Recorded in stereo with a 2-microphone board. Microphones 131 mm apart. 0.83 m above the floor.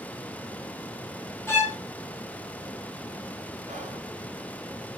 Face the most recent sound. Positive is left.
turn(degrees=-60)  # may be behind; listen again after turning